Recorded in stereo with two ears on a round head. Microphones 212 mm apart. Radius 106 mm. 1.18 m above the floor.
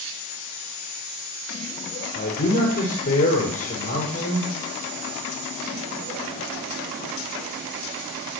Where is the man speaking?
40° left (ahead or behind), 5.5 m.